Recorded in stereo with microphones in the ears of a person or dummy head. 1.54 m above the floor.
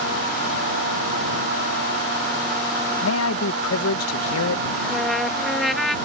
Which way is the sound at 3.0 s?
85° left.